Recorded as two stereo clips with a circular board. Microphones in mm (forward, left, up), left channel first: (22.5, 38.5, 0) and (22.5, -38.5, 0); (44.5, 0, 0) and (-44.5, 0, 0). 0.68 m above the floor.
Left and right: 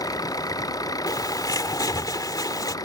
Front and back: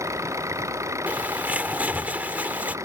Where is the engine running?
125° left.